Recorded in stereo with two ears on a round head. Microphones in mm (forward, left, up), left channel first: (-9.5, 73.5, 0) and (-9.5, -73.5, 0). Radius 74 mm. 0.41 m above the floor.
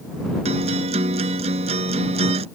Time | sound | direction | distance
0.5 | a guitar | 40° right (ahead or behind) | ?